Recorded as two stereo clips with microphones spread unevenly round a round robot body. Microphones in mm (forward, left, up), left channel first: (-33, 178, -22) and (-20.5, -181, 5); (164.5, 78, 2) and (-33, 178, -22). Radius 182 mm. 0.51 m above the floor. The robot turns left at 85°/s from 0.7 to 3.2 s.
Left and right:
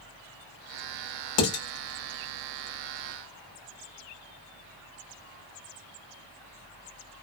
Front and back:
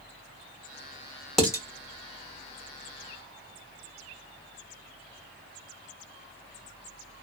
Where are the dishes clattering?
65° left, 1.1 m; by 1.6 s 45° left, 1.1 m.